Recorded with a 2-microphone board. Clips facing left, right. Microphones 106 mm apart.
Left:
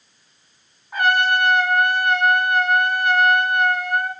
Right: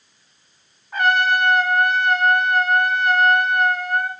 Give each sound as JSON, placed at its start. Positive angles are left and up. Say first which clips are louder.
{"t": 0.9, "sound": "a trumpet", "louder": "even", "side_deg": 10, "distance_m": 1.9}